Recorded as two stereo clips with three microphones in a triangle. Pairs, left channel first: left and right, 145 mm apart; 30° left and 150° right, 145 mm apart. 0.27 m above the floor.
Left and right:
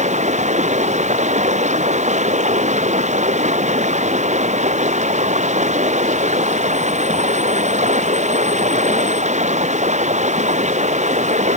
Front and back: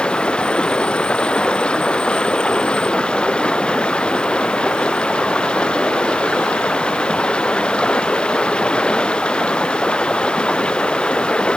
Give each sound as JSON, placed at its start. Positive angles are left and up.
{"t": 0.0, "sound": "running water", "azimuth_deg": -55}